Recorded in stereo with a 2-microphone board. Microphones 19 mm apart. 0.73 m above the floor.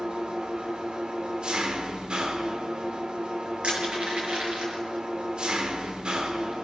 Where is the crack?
I don't hear a crack.